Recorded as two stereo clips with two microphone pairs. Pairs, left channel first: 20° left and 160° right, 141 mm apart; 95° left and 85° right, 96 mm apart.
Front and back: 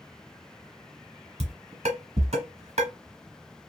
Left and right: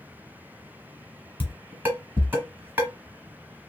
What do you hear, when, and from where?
1.4 s dishes clattering: 150° right, 1.3 m